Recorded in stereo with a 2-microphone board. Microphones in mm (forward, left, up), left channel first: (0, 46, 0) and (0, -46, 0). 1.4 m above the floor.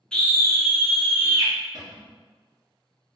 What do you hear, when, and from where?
0.1 s a scream: 10° left (ahead or behind), 0.6 m; by 1.5 s 75° left (ahead or behind), 0.9 m
1.7 s a cupboard door: 40° right (ahead or behind), 0.8 m